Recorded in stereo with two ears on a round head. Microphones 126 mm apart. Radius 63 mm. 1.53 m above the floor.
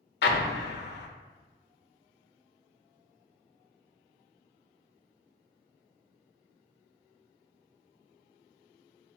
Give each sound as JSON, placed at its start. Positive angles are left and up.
{"t": 0.2, "sound": "an explosion", "side_deg": 85, "distance_m": 0.5}